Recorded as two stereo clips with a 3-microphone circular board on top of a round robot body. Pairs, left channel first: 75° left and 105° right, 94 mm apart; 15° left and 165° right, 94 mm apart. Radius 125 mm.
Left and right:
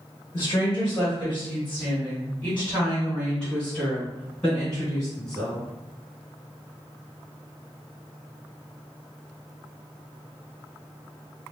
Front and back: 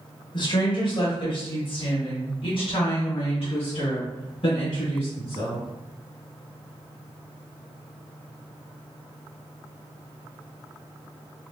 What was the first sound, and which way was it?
A woman speaking, 20° left.